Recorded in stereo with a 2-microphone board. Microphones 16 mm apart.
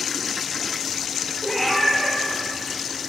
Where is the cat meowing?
15° left (ahead or behind), 0.9 m; by 3.1 s 45° left (ahead or behind), 1.9 m.